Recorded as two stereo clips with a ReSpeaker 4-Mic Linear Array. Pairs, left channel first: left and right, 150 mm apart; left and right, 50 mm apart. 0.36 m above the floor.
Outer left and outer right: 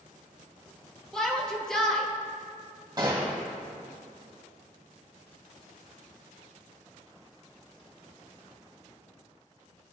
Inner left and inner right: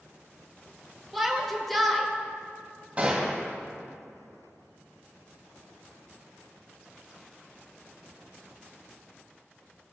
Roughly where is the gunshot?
Right.